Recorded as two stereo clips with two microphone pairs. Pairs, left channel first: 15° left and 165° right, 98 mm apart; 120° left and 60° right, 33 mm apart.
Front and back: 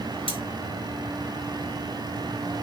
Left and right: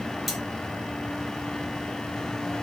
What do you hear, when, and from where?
0.3 s cutlery clinking: 30° left, 0.9 m